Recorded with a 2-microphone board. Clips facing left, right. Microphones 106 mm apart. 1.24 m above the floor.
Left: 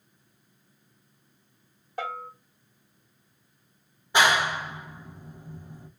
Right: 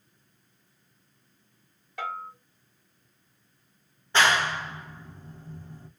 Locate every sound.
2.0 s a bell: 35° left (ahead or behind), 1.2 m
4.1 s a clap: 15° left (ahead or behind), 0.5 m